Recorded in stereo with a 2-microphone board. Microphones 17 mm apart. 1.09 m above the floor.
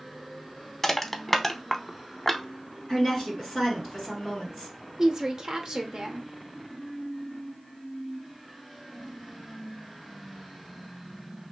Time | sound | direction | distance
0.8 | crushing | 20° left (ahead or behind) | 0.7 m
2.9 | a woman speaking | 5° right (ahead or behind) | 2.5 m
5.0 | a woman speaking | 40° right (ahead or behind) | 0.8 m